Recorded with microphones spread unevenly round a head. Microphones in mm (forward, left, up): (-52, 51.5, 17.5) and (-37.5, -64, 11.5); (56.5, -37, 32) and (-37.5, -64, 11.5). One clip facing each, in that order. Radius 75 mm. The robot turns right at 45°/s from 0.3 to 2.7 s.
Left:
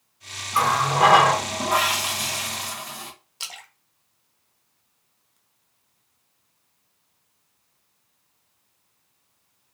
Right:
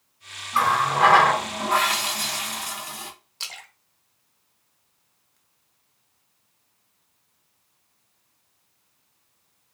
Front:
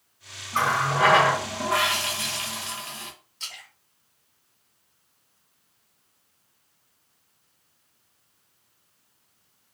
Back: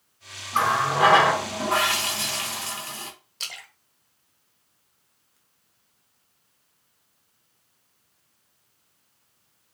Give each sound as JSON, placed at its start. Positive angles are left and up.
{"t": 0.5, "sound": "a running tap", "azimuth_deg": 90, "distance_m": 0.7}
{"t": 3.4, "sound": "a splash", "azimuth_deg": 175, "distance_m": 0.8}